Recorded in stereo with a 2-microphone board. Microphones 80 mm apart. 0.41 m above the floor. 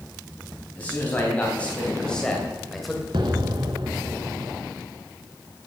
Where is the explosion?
70° right (ahead or behind), 1.4 m.